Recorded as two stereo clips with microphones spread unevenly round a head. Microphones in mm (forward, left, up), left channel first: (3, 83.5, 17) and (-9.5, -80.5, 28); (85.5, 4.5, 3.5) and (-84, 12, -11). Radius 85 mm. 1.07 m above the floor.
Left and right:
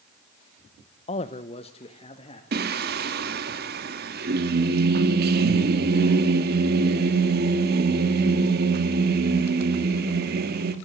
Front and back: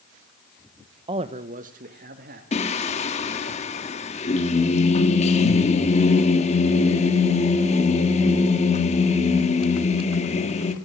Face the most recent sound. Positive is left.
turn(degrees=-60)